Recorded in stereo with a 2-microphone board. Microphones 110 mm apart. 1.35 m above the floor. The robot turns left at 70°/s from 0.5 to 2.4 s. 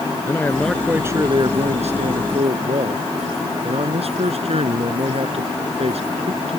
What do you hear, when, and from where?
0.2 s a man speaking: 20° left; by 6.6 s 115° right